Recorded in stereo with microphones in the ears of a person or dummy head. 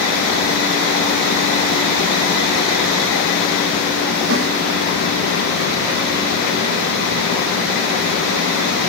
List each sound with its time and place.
4.3 s a snare drum: 70° right (ahead or behind), 4.5 m